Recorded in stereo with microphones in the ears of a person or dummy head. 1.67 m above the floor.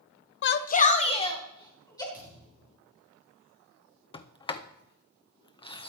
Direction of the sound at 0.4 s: 55° left (ahead or behind).